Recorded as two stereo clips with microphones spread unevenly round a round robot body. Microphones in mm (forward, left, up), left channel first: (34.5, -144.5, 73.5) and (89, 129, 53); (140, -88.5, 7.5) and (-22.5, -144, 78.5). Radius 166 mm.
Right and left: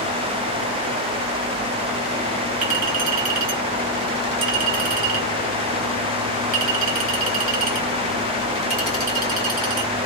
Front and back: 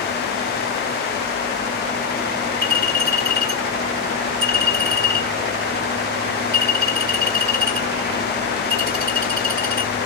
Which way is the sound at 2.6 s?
135° left.